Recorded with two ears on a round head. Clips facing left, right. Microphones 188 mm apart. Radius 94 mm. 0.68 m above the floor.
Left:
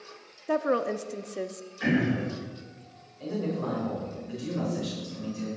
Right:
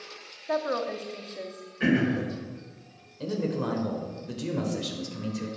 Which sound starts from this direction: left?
A woman speaking, at 0.5 s.